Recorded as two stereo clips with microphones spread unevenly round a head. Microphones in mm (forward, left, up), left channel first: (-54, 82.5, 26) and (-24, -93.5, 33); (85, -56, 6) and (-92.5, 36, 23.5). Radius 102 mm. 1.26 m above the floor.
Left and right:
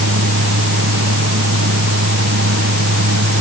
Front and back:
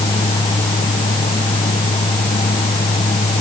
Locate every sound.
0.0 s a fan: 95° right